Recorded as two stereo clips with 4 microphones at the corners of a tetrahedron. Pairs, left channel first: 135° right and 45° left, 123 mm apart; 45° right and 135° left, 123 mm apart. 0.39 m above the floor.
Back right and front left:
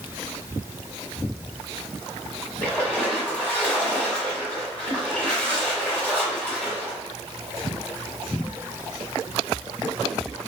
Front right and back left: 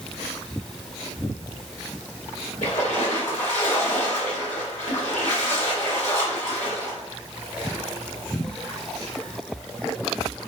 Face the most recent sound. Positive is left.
turn(degrees=-55)